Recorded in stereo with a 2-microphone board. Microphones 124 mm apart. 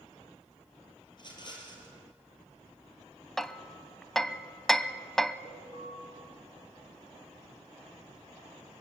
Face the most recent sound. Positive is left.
turn(degrees=35)  # may be behind; listen again after turning